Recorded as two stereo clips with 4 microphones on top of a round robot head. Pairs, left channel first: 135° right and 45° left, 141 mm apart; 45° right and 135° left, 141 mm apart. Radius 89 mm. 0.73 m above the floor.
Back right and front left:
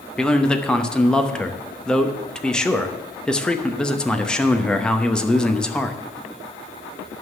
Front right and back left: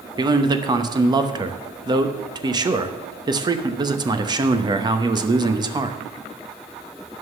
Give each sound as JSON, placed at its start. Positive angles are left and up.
{"t": 0.2, "sound": "a man speaking", "azimuth_deg": 145, "distance_m": 1.0}